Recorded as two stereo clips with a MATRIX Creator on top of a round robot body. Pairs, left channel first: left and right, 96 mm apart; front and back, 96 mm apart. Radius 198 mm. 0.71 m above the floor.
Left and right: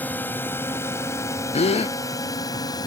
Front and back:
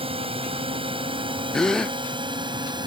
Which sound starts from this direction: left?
A gasp, at 1.5 s.